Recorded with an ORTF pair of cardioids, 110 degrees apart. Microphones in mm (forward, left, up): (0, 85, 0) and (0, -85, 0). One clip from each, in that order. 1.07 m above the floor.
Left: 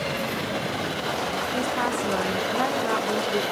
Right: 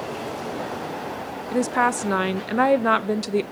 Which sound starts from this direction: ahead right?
A woman speaking, at 1.5 s.